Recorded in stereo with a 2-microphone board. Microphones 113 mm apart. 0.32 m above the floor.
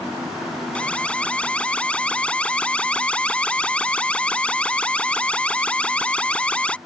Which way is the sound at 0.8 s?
10° left (ahead or behind).